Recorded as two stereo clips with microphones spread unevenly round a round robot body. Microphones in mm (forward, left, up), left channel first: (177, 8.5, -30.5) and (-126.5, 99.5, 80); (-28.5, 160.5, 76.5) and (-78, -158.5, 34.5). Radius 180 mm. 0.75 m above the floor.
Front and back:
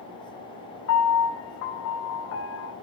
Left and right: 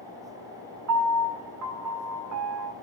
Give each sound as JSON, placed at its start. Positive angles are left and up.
{"t": 0.9, "sound": "a piano", "azimuth_deg": -60, "distance_m": 1.8}